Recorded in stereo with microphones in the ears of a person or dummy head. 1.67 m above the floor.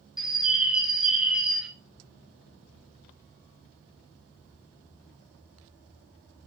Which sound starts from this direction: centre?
A bird, at 0.2 s.